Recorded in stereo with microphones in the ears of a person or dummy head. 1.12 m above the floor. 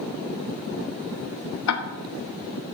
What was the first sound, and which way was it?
Ticking, 80° left.